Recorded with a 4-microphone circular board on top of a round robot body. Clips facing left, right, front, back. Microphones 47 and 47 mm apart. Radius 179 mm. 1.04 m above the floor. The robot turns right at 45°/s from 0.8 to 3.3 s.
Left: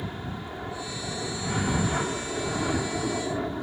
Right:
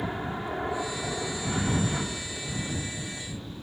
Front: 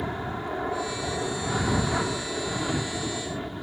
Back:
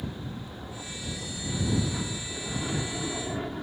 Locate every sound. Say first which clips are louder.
0.0 s an aircraft: right 4 dB, front 7 dB; 25° right; by 3.6 s 90° left